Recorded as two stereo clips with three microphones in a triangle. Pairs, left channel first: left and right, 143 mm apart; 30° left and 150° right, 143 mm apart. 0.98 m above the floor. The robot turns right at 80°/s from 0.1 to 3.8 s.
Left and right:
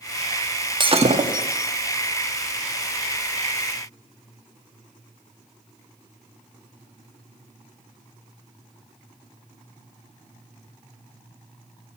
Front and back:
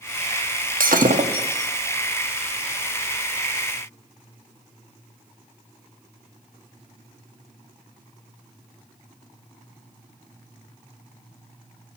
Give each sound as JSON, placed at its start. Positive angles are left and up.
{"t": 0.8, "sound": "breaking glass", "azimuth_deg": -150, "distance_m": 0.9}